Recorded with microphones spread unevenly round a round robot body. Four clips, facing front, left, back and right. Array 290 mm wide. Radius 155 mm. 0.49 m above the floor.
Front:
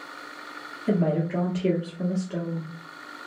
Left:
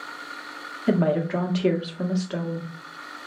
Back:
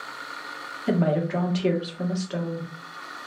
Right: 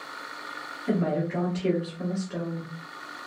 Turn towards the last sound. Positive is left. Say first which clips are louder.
# left 5 dB, back 1 dB
turn(degrees=100)